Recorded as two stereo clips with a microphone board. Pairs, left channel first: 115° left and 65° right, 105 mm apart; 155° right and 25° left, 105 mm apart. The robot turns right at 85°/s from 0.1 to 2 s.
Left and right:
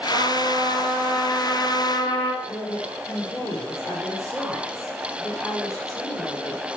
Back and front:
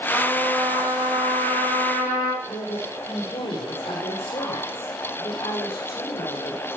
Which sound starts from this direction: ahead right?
A trumpet, at 0.1 s.